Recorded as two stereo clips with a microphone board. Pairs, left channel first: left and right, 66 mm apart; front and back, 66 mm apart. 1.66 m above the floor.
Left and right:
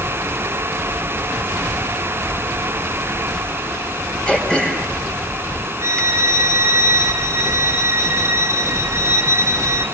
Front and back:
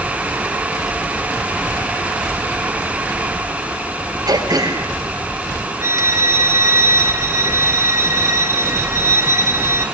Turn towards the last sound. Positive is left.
turn(degrees=-130)